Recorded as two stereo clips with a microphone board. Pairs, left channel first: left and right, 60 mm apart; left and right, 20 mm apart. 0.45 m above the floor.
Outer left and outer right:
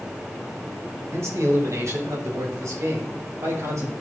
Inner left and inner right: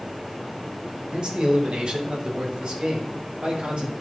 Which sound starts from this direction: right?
A man speaking, at 1.1 s.